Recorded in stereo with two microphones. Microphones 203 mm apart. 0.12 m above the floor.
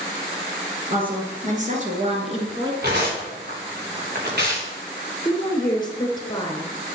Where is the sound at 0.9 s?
45° right (ahead or behind), 2 m; by 2.7 s 25° right (ahead or behind), 1.5 m.